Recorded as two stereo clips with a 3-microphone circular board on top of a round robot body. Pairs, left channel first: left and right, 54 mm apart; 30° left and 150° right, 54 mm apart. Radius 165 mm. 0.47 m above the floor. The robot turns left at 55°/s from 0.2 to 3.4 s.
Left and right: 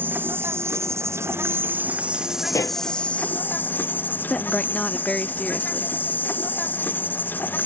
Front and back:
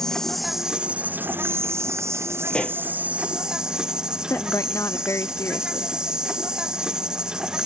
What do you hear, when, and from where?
0.0 s an insect: 50° right; by 7.7 s 135° left
2.5 s a pop: 110° left; by 2.8 s 90° left
4.3 s a woman speaking: 20° left